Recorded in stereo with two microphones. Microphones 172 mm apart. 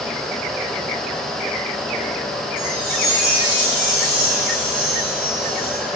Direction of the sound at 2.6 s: 45° right (ahead or behind).